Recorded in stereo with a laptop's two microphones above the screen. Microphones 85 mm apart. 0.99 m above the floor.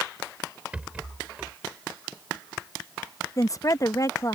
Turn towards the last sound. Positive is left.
turn(degrees=40)  # may be behind; listen again after turning